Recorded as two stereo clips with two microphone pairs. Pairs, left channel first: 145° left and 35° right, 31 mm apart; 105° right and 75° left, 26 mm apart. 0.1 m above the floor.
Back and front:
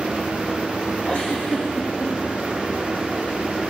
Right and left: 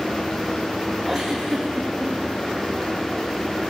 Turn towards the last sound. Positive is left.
turn(degrees=165)